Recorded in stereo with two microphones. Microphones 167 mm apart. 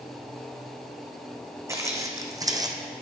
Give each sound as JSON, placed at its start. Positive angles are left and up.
{"t": 1.7, "sound": "footsteps", "side_deg": -15, "distance_m": 1.5}